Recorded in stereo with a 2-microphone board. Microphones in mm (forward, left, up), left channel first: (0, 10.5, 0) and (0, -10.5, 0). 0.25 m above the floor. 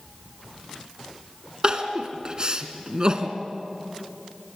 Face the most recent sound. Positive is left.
turn(degrees=-40)  # may be behind; listen again after turning